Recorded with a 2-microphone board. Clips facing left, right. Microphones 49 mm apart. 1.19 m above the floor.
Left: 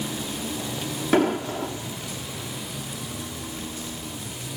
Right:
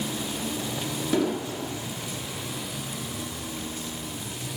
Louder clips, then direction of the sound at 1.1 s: Left 5 dB; 50° left (ahead or behind).